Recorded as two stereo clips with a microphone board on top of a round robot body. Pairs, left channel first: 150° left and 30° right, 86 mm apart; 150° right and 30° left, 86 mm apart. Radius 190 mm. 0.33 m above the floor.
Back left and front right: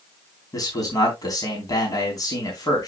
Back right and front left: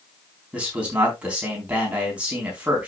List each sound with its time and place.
0.5 s a man speaking: 105° left, 4.5 m